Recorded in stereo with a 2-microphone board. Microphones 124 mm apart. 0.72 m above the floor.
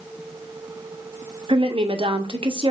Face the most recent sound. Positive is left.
turn(degrees=-45)  # may be behind; listen again after turning